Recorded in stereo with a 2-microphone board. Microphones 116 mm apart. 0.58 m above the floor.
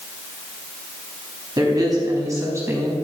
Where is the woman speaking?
35° right (ahead or behind), 5 m; by 2.9 s 20° right (ahead or behind), 5 m.